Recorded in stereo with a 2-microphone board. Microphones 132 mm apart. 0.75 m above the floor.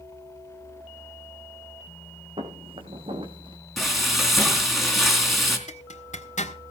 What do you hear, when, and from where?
2.4 s footsteps: 45° right (ahead or behind), 2.5 m; by 3.6 s 40° right (ahead or behind), 2 m
3.8 s frying: centre (ahead or behind), 3 m
5.7 s a zipper: 65° left (ahead or behind), 1.8 m